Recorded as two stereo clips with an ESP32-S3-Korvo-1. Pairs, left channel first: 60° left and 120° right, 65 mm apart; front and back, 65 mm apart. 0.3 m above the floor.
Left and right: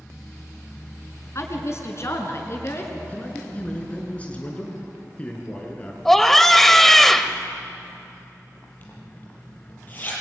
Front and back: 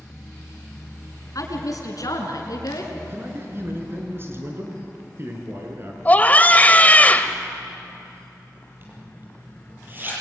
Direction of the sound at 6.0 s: 20° right.